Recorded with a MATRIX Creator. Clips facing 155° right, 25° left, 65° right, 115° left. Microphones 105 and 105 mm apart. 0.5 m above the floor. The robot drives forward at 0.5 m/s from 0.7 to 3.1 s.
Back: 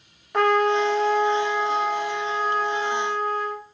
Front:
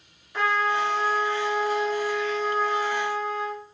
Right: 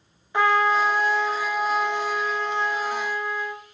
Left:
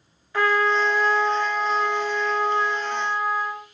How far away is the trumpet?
About 0.6 m.